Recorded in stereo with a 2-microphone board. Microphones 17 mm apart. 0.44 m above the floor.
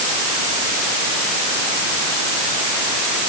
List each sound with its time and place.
Only background noise.